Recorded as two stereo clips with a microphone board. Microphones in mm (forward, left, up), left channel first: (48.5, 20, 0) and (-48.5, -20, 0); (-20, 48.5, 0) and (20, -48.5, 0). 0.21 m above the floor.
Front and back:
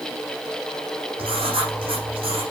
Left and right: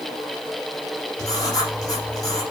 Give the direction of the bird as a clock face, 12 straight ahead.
I don't hear a bird.